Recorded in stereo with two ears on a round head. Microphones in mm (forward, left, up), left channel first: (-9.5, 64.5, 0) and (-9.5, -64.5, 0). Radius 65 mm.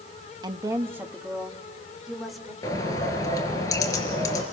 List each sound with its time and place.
0.4 s a woman speaking: 30° right (ahead or behind), 1.1 m; by 2.5 s centre (ahead or behind), 3.5 m
2.6 s a bird: 25° left (ahead or behind), 3 m